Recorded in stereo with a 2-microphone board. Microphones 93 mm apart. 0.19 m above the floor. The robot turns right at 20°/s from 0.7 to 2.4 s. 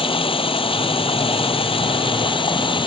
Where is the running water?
80° left; by 2.9 s 115° left.